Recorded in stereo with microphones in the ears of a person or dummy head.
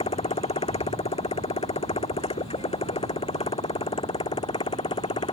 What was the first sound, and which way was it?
A motorcycle, 25° left (ahead or behind).